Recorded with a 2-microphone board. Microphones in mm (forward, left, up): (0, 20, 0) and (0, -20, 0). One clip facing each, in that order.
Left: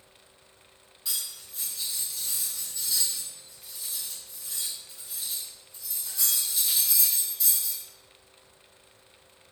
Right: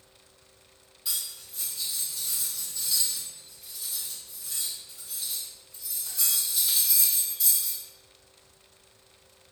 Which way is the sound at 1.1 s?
5° right (ahead or behind).